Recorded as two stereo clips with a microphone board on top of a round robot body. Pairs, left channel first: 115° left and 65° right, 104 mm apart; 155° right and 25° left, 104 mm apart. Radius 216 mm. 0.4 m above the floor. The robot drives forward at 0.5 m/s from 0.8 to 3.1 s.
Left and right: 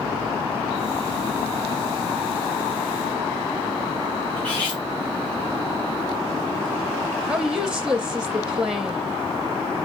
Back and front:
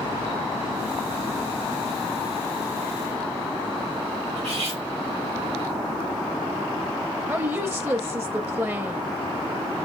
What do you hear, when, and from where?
4.4 s cutlery clinking: 35° left, 2.5 m
7.3 s a woman speaking: 5° left, 0.9 m